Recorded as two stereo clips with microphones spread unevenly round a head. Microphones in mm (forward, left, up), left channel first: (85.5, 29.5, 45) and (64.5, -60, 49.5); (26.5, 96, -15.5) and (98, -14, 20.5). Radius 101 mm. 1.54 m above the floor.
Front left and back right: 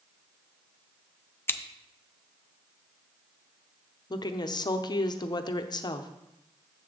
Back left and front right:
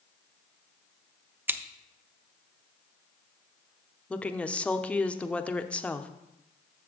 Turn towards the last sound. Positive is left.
turn(degrees=35)